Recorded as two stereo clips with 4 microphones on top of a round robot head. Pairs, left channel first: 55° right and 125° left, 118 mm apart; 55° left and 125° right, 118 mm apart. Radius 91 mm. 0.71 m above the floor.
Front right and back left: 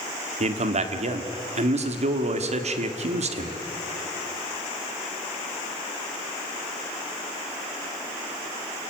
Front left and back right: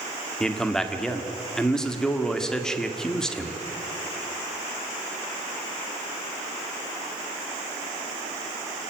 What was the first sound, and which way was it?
A man speaking, 140° left.